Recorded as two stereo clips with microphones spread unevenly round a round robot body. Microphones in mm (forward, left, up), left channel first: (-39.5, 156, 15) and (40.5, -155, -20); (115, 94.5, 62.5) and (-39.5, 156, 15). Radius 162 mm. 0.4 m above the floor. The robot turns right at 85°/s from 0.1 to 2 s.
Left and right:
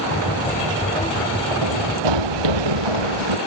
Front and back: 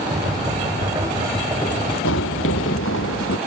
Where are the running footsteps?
95° right; by 3.4 s 70° right.